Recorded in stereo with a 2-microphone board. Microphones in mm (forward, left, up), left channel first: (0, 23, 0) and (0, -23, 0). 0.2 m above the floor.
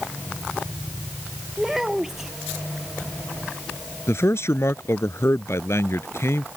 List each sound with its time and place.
1.6 s a child speaking: 10° right (ahead or behind)
4.1 s a man speaking: 65° left (ahead or behind)